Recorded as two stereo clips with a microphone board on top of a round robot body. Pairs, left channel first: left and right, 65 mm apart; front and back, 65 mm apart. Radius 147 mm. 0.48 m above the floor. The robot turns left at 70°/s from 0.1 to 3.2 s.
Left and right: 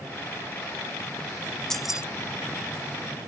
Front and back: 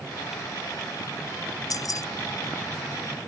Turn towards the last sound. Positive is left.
turn(degrees=-95)